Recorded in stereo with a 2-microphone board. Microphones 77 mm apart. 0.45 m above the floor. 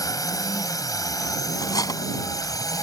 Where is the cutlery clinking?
50° left (ahead or behind).